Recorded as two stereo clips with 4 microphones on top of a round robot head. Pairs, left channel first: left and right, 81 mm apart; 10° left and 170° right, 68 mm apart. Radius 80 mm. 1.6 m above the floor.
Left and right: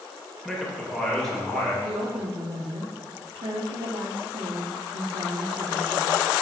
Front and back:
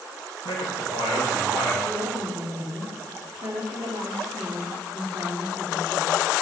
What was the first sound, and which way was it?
A man speaking, straight ahead.